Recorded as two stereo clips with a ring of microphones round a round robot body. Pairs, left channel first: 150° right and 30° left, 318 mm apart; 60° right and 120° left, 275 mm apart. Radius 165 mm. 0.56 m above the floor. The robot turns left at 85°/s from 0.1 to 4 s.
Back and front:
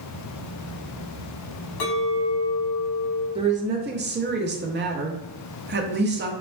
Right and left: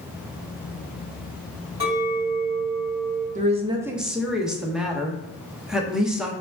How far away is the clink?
About 1.6 m.